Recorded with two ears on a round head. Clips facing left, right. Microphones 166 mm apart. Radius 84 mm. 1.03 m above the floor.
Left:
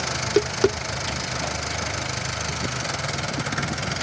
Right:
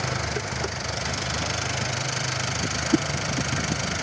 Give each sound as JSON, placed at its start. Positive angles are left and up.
{"t": 0.1, "sound": "tapping", "side_deg": 70}
{"t": 2.9, "sound": "a whoosh", "side_deg": -80}